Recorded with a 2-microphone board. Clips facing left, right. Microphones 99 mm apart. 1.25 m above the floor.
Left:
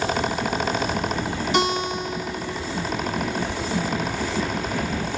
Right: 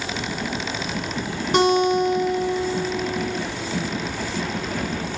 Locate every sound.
1.5 s a guitar: 40° right (ahead or behind), 1.6 m